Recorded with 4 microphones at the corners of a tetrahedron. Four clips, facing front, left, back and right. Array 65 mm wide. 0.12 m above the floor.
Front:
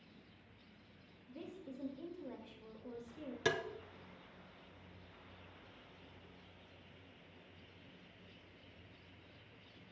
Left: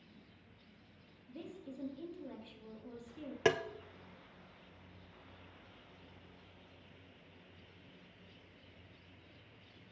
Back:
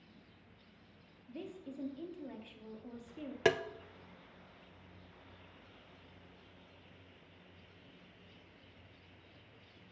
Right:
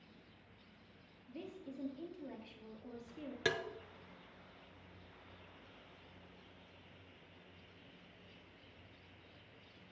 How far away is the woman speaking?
About 3 m.